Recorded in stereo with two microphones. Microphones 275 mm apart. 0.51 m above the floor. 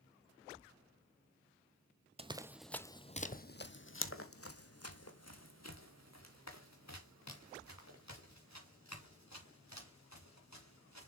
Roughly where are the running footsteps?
Right.